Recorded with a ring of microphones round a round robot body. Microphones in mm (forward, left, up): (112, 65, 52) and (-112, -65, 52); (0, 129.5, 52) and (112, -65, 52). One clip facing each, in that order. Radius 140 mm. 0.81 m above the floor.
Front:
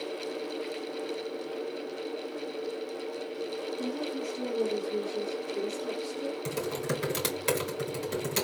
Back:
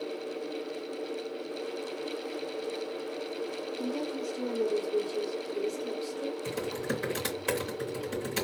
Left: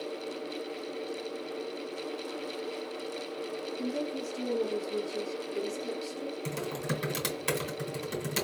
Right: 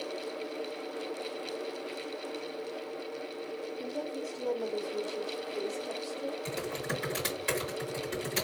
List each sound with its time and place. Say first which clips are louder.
3.8 s a woman speaking: back 2 dB, left 6 dB; 120° left, 2.5 m
6.5 s typing on a keyboard: front 1 dB, left 1 dB; 90° left, 3 m